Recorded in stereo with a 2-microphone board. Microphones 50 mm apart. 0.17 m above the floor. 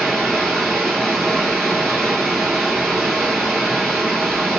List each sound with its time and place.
0.0 s running water: centre (ahead or behind), 1.5 m